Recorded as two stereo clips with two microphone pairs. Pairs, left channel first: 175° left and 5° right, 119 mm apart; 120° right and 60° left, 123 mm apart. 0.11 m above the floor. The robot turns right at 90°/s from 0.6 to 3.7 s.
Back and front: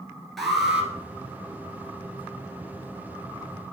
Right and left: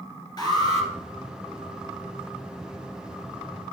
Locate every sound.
0.4 s an alarm: 100° right, 1.9 m; by 0.9 s 70° right, 1.9 m